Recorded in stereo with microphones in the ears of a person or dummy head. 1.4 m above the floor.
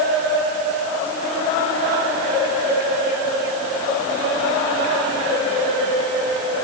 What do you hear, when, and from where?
Only background noise.